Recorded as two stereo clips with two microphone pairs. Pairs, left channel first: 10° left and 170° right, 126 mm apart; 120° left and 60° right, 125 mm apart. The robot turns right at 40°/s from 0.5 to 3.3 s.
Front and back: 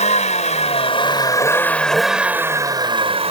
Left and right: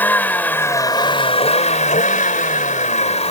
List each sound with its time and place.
0.0 s a vehicle: 45° left; by 3.3 s 155° left